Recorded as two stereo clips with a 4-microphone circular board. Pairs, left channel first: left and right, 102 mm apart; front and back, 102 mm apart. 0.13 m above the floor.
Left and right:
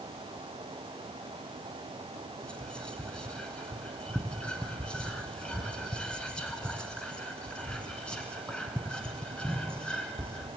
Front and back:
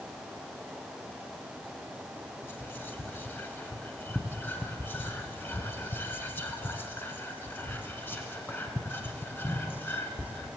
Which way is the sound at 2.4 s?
25° left.